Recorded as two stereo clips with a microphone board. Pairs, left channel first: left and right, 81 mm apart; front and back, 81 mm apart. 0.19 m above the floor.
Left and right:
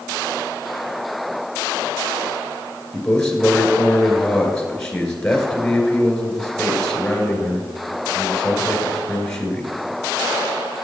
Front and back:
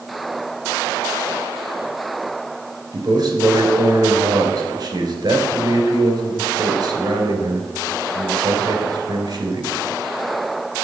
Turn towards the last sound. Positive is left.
turn(degrees=170)